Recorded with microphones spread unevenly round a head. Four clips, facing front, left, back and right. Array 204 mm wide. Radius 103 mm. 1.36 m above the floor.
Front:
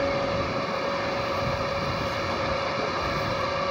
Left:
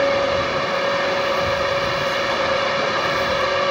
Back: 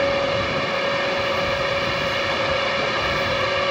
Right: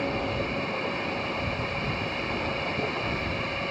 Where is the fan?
120° left.